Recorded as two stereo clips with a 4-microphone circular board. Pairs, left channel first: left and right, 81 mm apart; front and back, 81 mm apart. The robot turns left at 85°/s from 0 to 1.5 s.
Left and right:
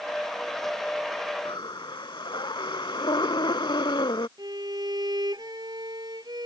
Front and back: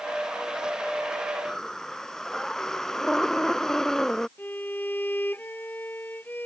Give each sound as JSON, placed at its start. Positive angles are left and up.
{"t": 1.4, "sound": "breathing", "azimuth_deg": 90}
{"t": 4.4, "sound": "a violin", "azimuth_deg": -65}